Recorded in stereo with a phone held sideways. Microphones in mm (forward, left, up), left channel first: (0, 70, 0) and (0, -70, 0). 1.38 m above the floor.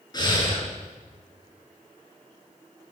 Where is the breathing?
30° left (ahead or behind), 5.5 m.